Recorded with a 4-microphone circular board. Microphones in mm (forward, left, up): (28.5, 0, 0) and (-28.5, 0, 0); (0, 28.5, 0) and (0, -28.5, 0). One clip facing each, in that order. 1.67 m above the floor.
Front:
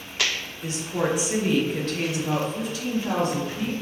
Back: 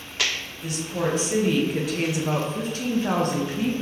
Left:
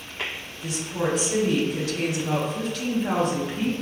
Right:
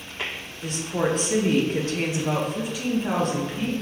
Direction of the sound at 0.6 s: 55° right.